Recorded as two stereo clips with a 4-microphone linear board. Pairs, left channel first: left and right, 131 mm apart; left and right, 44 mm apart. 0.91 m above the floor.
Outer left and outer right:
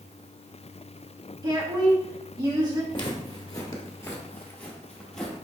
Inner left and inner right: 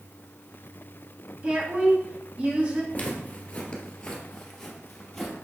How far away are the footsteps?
About 1.1 m.